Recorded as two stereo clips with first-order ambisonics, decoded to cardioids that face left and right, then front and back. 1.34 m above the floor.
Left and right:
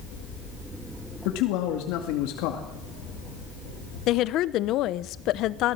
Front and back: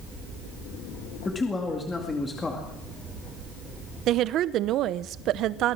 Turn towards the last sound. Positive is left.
turn(degrees=135)